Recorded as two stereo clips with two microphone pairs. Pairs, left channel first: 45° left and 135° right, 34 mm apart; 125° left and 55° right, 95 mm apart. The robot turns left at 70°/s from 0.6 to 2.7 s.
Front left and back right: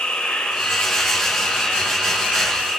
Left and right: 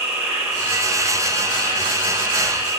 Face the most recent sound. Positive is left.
turn(degrees=-115)